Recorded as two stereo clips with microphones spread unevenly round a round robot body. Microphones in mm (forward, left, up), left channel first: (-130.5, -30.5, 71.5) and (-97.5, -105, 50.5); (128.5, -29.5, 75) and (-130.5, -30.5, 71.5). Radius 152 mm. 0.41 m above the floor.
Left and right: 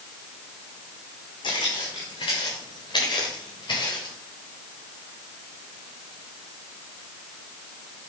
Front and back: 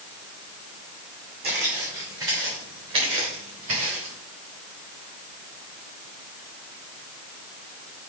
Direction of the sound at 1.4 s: 125° left.